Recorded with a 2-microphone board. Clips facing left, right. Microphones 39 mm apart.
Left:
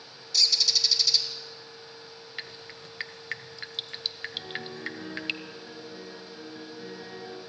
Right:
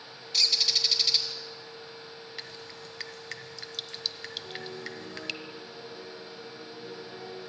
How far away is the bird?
About 2.5 m.